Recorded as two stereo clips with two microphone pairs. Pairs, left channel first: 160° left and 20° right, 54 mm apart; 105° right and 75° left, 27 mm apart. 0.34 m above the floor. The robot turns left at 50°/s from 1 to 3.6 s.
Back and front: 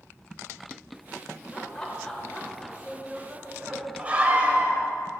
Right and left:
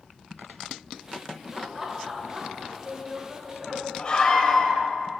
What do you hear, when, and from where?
1.5 s laughter: 140° left, 1.0 m; by 3.9 s 35° left, 1.0 m
4.0 s a scream: 70° right, 1.5 m